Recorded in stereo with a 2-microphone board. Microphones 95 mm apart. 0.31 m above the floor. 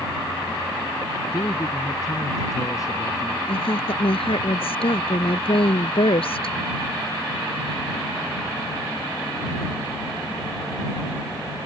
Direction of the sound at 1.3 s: 45° left (ahead or behind).